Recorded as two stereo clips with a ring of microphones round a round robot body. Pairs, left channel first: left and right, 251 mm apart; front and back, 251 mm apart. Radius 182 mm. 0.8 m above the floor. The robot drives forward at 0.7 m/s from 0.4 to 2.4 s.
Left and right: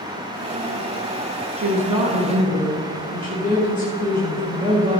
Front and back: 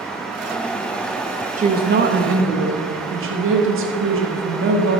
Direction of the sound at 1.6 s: 135° right.